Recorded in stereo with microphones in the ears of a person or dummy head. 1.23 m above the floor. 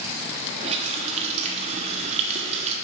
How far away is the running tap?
About 1.3 m.